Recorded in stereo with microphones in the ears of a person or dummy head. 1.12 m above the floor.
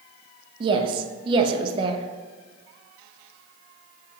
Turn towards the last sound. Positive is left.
turn(degrees=-30)  # may be behind; listen again after turning